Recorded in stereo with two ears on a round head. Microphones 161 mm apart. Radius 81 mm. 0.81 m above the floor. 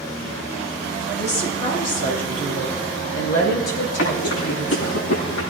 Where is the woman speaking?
40° left (ahead or behind), 6.5 m; by 5.0 s 70° left (ahead or behind), 7.5 m.